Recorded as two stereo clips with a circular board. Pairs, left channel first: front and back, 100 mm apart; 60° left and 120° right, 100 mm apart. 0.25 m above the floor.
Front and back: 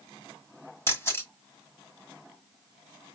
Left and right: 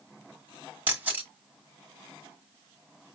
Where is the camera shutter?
50° right, 1.6 m.